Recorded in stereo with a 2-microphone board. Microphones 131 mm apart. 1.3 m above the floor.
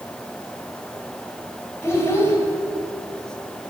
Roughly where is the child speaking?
Centre.